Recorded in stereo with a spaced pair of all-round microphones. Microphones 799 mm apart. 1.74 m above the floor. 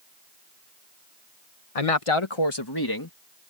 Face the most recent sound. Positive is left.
turn(degrees=25)  # may be behind; listen again after turning